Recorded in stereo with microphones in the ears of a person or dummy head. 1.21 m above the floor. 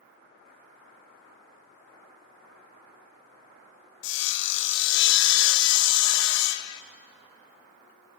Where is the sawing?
65° left (ahead or behind), 1.4 m.